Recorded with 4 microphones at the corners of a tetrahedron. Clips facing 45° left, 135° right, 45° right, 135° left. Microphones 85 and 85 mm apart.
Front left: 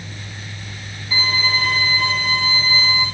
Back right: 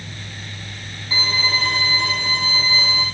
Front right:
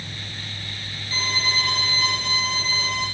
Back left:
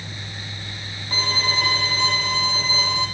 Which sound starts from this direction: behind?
A violin, at 1.1 s.